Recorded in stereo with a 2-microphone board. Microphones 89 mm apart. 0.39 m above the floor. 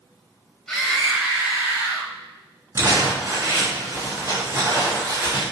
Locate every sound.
0.7 s a scream: 10° left (ahead or behind), 2.0 m; by 2.1 s 35° right (ahead or behind), 2.5 m
2.8 s crumpling: 30° right (ahead or behind), 4.5 m